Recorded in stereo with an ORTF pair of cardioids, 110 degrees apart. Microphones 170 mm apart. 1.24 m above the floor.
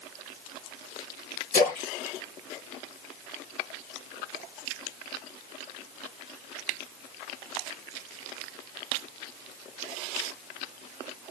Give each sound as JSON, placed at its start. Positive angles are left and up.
{"t": 1.5, "sound": "a splash", "azimuth_deg": 60, "distance_m": 1.3}